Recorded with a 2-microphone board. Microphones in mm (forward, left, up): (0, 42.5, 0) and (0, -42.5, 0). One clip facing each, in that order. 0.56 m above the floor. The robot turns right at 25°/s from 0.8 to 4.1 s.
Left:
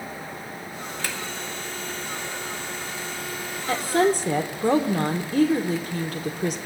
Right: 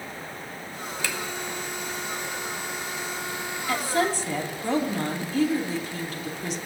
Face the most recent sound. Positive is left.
turn(degrees=45)  # may be behind; listen again after turning